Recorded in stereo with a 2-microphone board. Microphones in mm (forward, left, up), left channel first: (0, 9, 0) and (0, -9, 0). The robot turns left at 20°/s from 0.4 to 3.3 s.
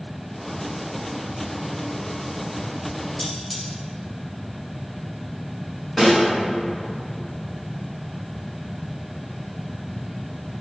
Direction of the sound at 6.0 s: 5° left (ahead or behind).